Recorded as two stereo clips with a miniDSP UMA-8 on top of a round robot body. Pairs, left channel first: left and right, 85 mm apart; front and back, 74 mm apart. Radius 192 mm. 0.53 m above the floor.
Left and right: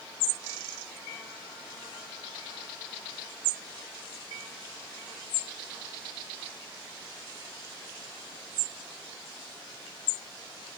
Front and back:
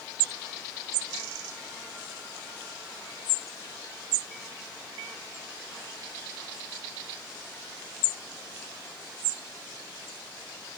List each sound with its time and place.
Only background noise.